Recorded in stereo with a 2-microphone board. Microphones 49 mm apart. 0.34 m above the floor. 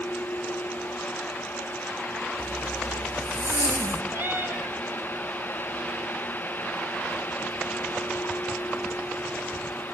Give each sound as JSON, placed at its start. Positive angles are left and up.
{"t": 2.4, "sound": "a zipper", "side_deg": -75, "distance_m": 1.7}
{"t": 4.1, "sound": "a cat meowing", "side_deg": -55, "distance_m": 1.7}